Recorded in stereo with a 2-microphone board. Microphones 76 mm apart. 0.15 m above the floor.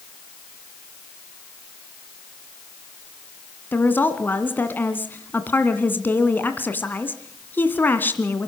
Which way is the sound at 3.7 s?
25° left (ahead or behind).